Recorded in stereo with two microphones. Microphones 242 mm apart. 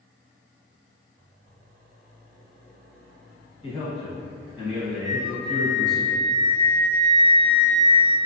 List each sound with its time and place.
3.6 s a man speaking: 25° left (ahead or behind), 1.0 m
5.0 s a flute: centre (ahead or behind), 0.9 m